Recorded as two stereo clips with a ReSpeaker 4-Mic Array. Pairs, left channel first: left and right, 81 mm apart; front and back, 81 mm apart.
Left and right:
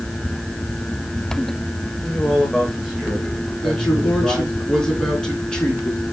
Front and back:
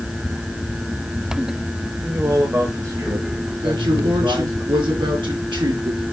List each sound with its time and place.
2.0 s a man speaking: 150° left, 1.6 m; by 4.6 s 150° right, 3.5 m
3.6 s a man speaking: 170° left, 4 m